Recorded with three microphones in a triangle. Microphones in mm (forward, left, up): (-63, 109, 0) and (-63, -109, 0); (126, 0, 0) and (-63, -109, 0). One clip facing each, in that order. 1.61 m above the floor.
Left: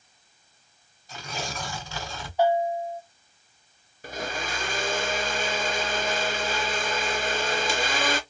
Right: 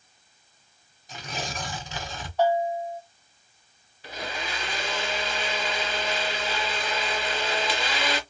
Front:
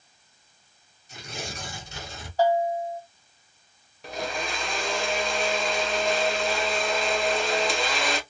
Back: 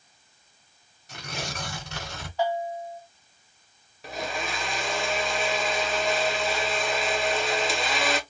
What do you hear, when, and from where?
1.1 s tearing paper: 165° right, 1.0 m
2.4 s a bell: 20° left, 1.8 m
4.0 s a blender: 120° left, 0.6 m